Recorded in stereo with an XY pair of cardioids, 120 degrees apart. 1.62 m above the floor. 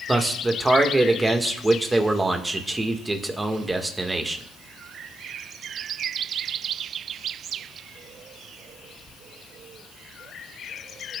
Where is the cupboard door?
I don't hear a cupboard door.